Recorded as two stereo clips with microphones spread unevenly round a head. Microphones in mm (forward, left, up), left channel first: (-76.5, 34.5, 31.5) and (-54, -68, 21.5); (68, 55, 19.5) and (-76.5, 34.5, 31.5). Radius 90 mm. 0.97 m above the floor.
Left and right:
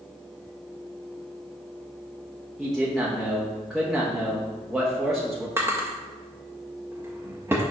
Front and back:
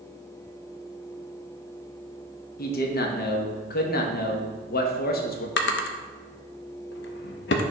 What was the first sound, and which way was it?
A man speaking, 10° left.